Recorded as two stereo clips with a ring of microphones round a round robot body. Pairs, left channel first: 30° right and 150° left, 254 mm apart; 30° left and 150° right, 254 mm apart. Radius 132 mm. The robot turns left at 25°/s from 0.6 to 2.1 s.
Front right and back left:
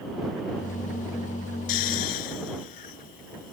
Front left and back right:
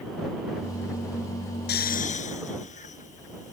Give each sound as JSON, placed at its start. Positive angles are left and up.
{"t": 1.7, "sound": "snoring", "azimuth_deg": -25}